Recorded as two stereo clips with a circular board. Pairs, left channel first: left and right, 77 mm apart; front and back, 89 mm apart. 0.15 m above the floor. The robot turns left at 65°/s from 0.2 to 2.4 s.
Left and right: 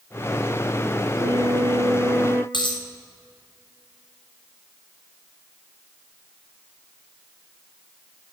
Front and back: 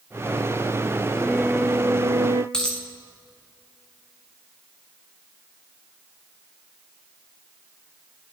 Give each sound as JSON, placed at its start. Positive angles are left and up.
{"t": 1.1, "sound": "a flute", "azimuth_deg": -75, "distance_m": 0.6}
{"t": 2.5, "sound": "a dropped coin", "azimuth_deg": 80, "distance_m": 3.5}